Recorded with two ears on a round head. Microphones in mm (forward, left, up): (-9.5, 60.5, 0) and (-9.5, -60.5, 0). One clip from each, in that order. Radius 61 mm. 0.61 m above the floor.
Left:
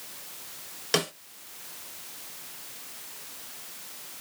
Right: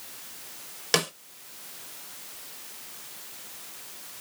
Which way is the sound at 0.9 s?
15° right (ahead or behind).